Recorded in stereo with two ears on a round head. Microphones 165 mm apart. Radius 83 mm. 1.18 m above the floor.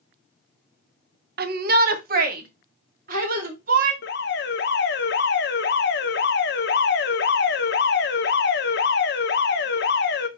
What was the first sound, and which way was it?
A shout, 55° right (ahead or behind).